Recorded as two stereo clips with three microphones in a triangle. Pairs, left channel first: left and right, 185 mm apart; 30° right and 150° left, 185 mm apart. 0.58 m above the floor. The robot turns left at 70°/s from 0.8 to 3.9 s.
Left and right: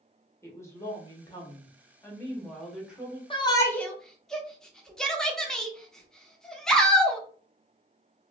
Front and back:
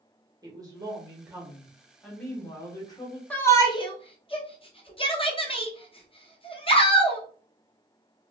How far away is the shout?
About 0.7 m.